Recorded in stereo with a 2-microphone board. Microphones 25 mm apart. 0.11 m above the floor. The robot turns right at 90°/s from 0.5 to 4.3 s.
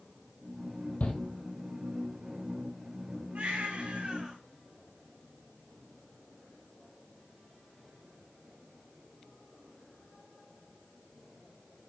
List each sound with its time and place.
1.0 s a shout: 65° left (ahead or behind), 2.5 m; by 1.2 s 60° left (ahead or behind), 2.5 m
3.4 s a baby crying: 105° right, 7 m; by 4.4 s 20° right, 7 m